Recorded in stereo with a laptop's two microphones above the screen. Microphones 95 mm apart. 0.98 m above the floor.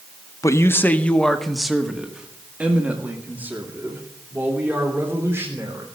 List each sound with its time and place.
0.4 s a man speaking: 35° left (ahead or behind), 0.8 m; by 5.8 s 25° right (ahead or behind), 3.5 m